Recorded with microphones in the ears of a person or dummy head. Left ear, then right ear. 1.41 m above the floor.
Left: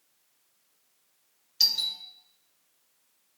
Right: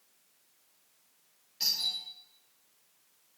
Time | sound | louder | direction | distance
1.6 | a doorbell | left 6 dB | 50° left (ahead or behind) | 2 m